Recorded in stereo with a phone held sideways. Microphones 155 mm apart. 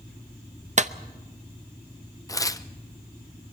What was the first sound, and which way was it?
A clap, 50° right (ahead or behind).